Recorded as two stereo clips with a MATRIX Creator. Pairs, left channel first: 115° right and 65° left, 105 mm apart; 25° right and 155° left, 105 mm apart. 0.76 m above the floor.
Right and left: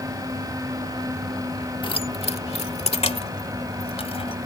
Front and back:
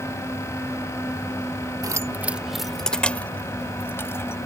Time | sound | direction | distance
1.8 | keys jangling | 150° right | ?